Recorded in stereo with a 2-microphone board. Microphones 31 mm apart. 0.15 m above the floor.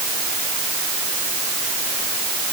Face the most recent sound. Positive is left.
No sound to turn to.